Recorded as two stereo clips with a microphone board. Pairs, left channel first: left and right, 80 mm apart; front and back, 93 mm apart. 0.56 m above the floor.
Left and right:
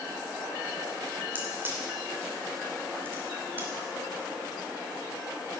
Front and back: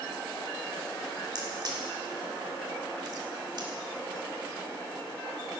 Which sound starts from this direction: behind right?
A crack, at 1.4 s.